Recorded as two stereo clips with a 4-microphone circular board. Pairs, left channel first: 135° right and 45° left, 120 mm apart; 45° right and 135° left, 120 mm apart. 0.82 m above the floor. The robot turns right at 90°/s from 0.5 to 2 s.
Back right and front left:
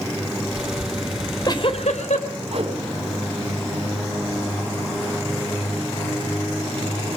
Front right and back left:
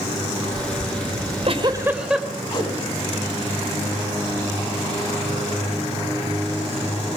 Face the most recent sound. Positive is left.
turn(degrees=10)